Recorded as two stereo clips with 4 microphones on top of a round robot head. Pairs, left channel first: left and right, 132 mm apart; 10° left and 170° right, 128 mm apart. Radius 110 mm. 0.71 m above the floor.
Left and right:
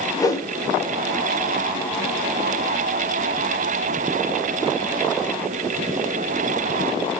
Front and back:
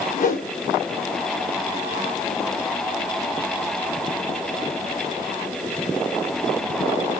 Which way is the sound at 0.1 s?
25° left.